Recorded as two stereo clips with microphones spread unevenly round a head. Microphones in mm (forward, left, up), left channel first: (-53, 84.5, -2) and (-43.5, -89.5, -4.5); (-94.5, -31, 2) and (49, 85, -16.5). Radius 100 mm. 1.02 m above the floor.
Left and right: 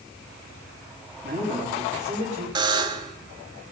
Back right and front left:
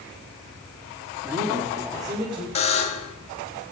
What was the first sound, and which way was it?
A man speaking, 40° right.